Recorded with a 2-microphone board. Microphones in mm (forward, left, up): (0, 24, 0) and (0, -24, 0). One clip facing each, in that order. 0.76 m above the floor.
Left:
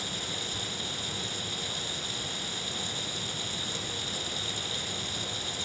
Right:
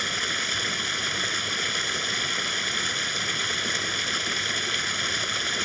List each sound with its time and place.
0.0 s running water: 70° right (ahead or behind)